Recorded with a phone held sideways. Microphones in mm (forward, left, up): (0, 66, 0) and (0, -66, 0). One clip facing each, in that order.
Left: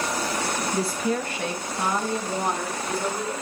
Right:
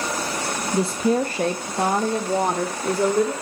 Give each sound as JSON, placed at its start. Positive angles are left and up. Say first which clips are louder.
{"t": 0.7, "sound": "a woman speaking", "louder": "right 8 dB", "side_deg": -15, "distance_m": 0.5}